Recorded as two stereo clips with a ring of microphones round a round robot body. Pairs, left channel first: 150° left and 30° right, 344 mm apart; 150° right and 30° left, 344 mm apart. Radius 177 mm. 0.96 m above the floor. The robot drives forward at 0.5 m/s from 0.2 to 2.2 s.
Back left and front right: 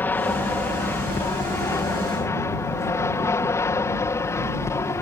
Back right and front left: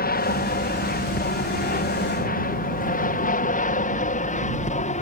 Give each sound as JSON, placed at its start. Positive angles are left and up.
{"t": 0.0, "sound": "an aircraft", "azimuth_deg": -130}